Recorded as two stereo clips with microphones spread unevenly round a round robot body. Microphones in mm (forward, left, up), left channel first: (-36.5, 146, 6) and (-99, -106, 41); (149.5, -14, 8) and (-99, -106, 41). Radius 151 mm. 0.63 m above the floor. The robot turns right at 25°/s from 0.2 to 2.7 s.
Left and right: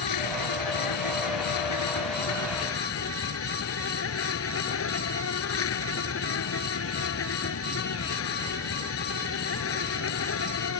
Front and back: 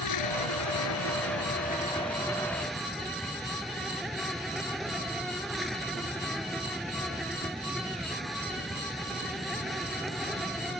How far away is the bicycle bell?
No bicycle bell in this recording.